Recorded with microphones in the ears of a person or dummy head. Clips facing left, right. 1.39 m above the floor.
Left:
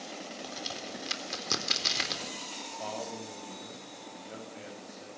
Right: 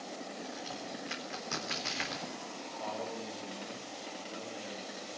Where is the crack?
55° left (ahead or behind), 4 m.